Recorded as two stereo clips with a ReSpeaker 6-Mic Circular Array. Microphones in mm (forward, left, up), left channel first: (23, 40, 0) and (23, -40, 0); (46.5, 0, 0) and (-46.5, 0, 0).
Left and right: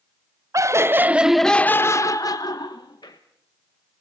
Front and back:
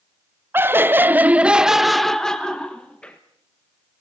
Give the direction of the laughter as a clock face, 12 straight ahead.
4 o'clock.